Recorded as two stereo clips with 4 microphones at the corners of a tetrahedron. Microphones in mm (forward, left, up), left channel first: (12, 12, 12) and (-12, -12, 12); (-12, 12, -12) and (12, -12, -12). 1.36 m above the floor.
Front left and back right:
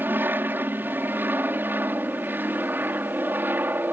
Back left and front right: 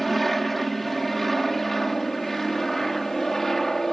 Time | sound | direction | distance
0.0 | an aircraft | 140° right | ?